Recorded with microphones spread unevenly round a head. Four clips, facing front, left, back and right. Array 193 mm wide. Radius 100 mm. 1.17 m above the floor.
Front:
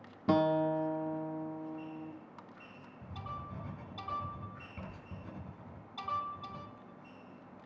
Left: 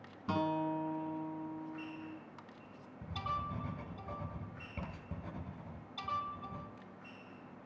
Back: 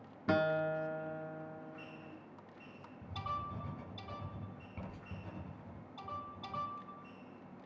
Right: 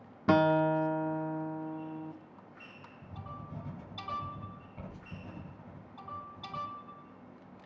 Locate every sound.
0.3 s a guitar: 90° right, 0.7 m
3.0 s writing: 100° left, 8.5 m